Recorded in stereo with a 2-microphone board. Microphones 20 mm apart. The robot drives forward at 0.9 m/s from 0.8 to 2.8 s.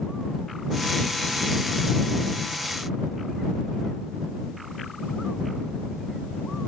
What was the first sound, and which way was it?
Only background noise.